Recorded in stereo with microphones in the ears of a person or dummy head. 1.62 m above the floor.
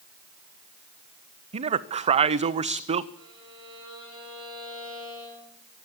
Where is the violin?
20° right (ahead or behind), 7.5 m.